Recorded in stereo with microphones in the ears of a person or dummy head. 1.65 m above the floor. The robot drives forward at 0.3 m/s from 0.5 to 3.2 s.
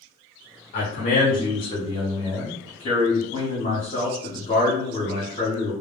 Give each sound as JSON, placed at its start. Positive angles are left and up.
{"t": 0.7, "sound": "a man speaking", "side_deg": 45, "distance_m": 0.7}